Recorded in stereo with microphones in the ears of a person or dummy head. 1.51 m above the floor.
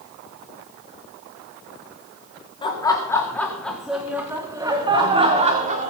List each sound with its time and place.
2.6 s laughter: 20° left (ahead or behind), 3 m; by 5.9 s 35° right (ahead or behind), 4 m